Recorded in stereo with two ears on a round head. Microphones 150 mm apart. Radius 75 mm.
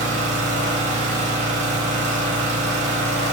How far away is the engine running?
About 0.8 m.